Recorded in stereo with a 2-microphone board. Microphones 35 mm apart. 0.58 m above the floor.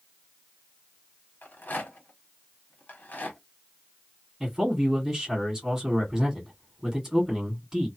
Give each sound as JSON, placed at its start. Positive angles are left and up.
{"t": 1.4, "sound": "a rattle", "side_deg": 55, "distance_m": 1.1}
{"t": 4.4, "sound": "a man speaking", "side_deg": -15, "distance_m": 1.8}